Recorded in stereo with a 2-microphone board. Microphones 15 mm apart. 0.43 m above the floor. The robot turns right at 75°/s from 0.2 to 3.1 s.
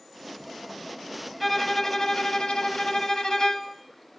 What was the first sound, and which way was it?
A violin, 5° right.